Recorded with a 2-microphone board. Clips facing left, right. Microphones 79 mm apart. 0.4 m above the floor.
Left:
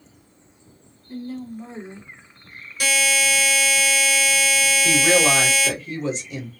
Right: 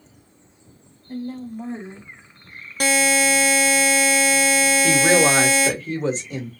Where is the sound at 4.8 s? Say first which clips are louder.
Right 1 dB; 35° right (ahead or behind), 1.5 m.